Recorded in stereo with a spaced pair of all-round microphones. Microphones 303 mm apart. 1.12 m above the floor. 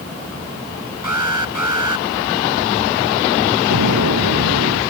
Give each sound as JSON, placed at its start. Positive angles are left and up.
{"t": 1.0, "sound": "an alarm", "side_deg": -80}
{"t": 3.7, "sound": "an explosion", "side_deg": -70}